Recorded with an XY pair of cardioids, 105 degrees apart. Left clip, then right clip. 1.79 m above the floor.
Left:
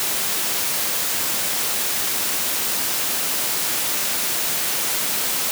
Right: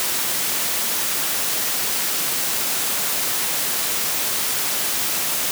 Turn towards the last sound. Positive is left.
No sound to turn to.